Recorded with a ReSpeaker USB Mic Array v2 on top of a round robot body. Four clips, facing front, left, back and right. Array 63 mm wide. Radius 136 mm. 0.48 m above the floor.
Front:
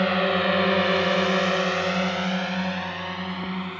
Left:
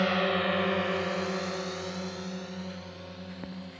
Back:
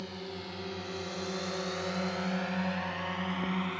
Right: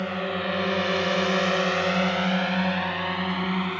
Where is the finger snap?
I don't hear a finger snap.